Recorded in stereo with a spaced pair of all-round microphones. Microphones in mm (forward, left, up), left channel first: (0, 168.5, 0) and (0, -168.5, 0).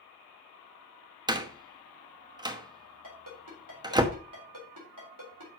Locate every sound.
1.3 s a door slam: 10° right (ahead or behind), 1.0 m
3.0 s a ringtone: 65° right (ahead or behind), 3.5 m